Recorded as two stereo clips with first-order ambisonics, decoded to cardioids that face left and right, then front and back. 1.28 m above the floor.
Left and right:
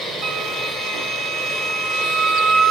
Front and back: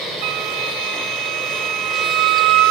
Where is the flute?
160° right, 0.6 m.